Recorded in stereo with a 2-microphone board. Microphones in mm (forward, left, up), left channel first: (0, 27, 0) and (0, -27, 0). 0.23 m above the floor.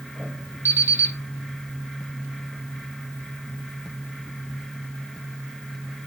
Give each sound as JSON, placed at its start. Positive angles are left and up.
{"t": 0.7, "sound": "an alarm clock", "side_deg": -50, "distance_m": 4.0}